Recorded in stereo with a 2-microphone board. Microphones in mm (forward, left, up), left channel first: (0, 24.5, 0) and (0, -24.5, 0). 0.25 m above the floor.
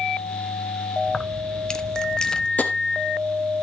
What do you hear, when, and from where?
1.1 s keys jangling: 15° left (ahead or behind), 0.8 m
2.6 s tapping: 30° left (ahead or behind), 1.3 m